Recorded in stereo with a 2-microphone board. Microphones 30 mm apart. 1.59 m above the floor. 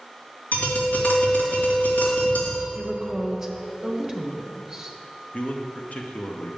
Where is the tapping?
70° left (ahead or behind), 2 m.